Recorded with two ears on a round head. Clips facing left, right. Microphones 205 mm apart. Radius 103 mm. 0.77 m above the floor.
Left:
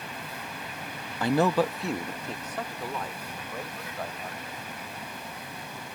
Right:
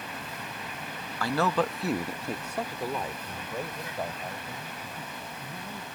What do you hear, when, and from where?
1.2 s a man speaking: 20° left (ahead or behind); by 5.8 s 15° right (ahead or behind)